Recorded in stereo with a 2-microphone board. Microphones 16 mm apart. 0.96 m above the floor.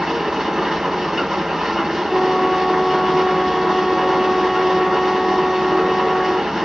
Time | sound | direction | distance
0.0 | an engine running | 35° right (ahead or behind) | 2.5 m
2.0 | a flute | centre (ahead or behind) | 1.3 m